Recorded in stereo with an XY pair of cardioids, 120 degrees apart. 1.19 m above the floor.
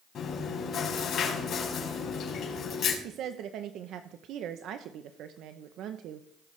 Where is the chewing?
50° left, 4.5 m.